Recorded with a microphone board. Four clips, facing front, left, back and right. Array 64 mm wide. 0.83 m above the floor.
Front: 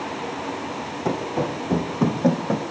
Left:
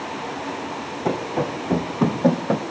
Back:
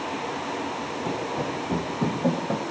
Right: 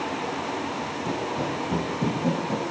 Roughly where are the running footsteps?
Ahead left.